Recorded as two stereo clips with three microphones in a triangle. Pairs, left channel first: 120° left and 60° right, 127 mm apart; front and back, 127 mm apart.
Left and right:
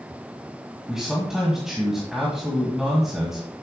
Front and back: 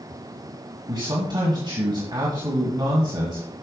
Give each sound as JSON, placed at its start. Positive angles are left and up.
{"t": 0.9, "sound": "a man speaking", "azimuth_deg": -145, "distance_m": 2.0}